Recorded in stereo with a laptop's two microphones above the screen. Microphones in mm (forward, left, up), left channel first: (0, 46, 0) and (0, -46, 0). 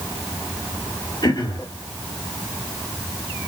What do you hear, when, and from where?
1.2 s throat clearing: 50° left (ahead or behind), 1.5 m